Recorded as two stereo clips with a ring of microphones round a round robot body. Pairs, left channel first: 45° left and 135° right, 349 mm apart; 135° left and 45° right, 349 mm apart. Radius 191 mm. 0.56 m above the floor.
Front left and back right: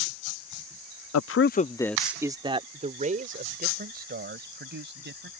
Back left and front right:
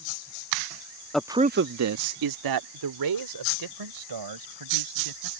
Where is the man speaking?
50° left; by 5.3 s 75° right.